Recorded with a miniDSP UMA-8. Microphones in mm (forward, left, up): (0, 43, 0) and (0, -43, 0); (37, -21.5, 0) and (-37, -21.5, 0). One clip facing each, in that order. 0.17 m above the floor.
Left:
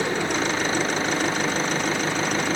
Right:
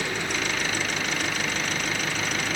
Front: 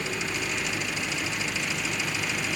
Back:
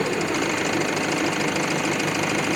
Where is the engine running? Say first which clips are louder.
Left 5 dB, back 8 dB; 150° left.